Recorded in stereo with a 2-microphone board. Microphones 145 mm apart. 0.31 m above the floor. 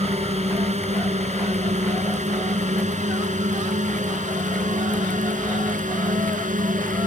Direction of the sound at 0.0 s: 50° right (ahead or behind).